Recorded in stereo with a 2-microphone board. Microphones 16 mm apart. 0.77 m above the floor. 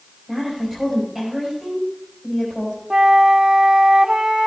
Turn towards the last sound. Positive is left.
turn(degrees=-65)  # may be behind; listen again after turning